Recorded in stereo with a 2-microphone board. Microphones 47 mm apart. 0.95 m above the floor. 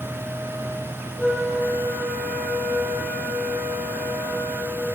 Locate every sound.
1.2 s a flute: 5° right (ahead or behind), 1.0 m